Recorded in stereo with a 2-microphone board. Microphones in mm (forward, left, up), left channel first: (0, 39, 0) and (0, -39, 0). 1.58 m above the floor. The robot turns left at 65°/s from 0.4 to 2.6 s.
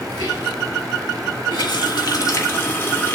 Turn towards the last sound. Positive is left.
turn(degrees=30)